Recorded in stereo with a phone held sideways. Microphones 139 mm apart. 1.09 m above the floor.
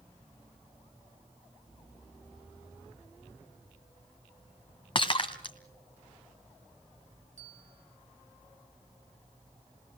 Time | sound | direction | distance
5.0 | breaking glass | 40° left (ahead or behind) | 1.3 m
7.4 | a bell | 65° right (ahead or behind) | 3 m